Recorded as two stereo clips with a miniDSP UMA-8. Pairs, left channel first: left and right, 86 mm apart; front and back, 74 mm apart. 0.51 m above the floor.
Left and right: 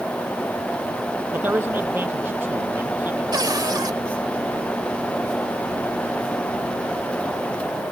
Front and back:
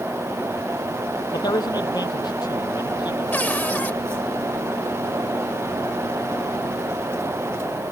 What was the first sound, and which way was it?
A man speaking, 25° right.